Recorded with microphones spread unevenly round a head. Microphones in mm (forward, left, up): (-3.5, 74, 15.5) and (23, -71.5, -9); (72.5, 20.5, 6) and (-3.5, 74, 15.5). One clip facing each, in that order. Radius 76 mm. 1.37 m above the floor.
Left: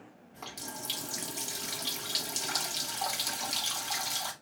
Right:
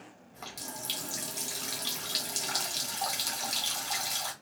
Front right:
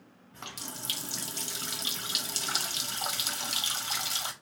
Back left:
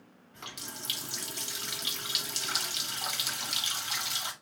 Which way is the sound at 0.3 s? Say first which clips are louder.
Even, front right 2 dB; 10° left.